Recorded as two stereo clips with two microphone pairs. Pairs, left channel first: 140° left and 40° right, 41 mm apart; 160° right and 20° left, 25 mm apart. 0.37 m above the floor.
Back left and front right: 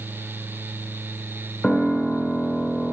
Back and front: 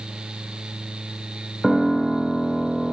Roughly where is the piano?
Left.